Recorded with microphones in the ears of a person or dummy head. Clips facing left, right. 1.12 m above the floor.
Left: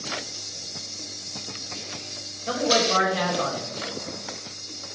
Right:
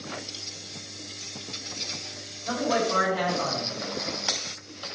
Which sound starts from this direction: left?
A man speaking, at 2.5 s.